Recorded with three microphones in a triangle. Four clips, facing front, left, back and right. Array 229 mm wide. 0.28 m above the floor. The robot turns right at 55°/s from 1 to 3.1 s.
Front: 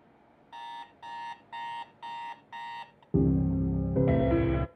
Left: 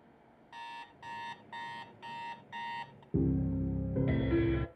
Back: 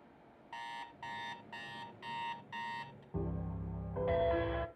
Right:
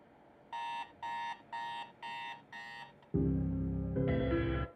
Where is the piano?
10° left, 0.6 m.